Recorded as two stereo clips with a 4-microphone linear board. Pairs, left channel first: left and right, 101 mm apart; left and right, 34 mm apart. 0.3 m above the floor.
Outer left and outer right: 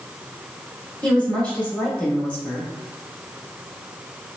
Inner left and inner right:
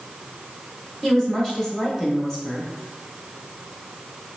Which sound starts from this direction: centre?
A woman speaking, at 1.0 s.